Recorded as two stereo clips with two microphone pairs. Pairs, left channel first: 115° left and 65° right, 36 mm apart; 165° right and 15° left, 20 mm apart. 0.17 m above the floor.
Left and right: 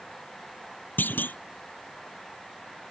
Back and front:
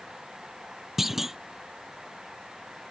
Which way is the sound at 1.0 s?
95° left.